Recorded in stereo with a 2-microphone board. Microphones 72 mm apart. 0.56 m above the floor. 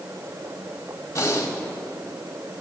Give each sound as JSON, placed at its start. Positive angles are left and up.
{"t": 1.1, "sound": "breathing", "side_deg": 40, "distance_m": 1.8}